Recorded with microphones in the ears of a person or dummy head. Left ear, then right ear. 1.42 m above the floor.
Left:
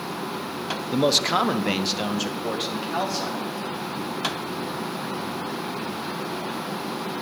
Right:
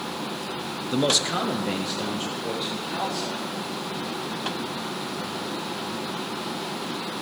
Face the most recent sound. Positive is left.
turn(degrees=80)